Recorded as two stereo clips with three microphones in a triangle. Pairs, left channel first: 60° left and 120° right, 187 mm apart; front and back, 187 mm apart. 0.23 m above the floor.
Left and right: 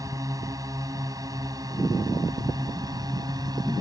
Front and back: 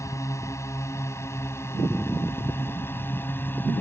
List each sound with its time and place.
0.0 s a drone: 60° right; by 3.8 s 70° right